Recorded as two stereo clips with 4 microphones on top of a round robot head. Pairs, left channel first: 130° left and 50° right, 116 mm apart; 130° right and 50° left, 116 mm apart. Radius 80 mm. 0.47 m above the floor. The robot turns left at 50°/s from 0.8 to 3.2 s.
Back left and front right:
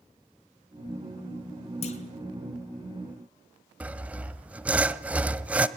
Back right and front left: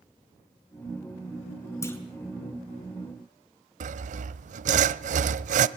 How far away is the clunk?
About 4.5 m.